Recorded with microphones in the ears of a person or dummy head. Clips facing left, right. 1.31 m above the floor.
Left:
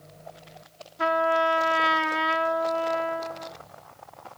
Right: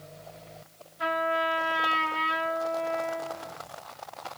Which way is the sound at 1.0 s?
60° left (ahead or behind).